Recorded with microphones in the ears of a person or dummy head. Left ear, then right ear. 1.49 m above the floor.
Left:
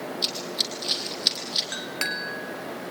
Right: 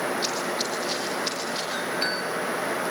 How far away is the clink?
About 4 m.